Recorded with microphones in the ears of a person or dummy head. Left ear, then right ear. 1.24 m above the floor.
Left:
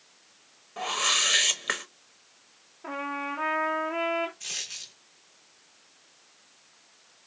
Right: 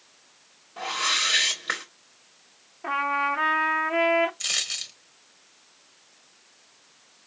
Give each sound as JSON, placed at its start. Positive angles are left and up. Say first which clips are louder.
{"t": 0.8, "sound": "a whoosh", "louder": "right 1 dB", "side_deg": 25, "distance_m": 1.1}
{"t": 2.8, "sound": "a trumpet", "louder": "right 8 dB", "side_deg": -20, "distance_m": 0.6}
{"t": 4.4, "sound": "a dropped coin", "louder": "right 8 dB", "side_deg": -20, "distance_m": 0.9}